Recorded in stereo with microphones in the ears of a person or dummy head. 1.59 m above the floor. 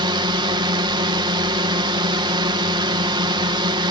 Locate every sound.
0.0 s a drone: 25° right (ahead or behind)